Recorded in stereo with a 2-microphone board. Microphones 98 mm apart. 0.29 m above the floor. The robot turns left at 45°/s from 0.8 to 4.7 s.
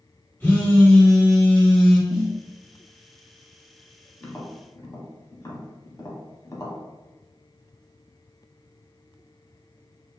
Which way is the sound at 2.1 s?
5° right (ahead or behind).